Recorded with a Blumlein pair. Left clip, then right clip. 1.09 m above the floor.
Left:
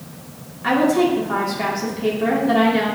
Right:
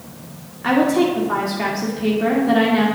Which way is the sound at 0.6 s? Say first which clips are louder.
Even; 5° right.